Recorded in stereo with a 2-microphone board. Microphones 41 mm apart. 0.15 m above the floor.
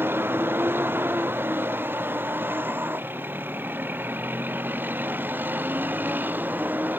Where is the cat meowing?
No cat meowing in this recording.